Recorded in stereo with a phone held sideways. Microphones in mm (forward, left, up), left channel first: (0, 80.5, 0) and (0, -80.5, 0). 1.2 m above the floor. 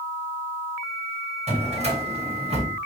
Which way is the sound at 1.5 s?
45° right (ahead or behind).